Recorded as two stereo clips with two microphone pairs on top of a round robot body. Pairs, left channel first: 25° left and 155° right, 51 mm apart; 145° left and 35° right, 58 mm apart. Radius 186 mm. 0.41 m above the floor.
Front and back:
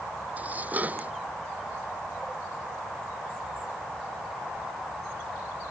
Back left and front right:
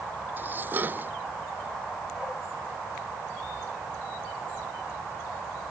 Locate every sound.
0.4 s dishes clattering: 95° right